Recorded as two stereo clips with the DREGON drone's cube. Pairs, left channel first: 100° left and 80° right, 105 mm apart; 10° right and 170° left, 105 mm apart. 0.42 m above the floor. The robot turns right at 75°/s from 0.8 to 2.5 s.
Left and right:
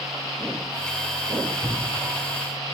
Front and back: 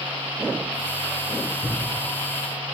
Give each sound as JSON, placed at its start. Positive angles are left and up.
{"t": 1.6, "sound": "a thud", "azimuth_deg": 5, "distance_m": 3.0}